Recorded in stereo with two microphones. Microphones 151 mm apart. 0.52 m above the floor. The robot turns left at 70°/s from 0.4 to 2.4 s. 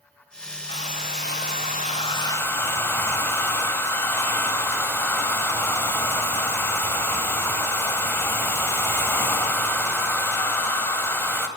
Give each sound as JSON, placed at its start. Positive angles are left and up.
{"t": 0.7, "sound": "a hair dryer", "azimuth_deg": 135, "distance_m": 1.1}